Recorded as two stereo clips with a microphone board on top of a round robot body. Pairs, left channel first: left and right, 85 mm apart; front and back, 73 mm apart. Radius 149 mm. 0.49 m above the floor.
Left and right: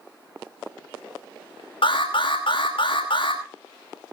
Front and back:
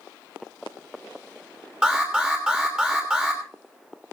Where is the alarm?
105° left, 5 m.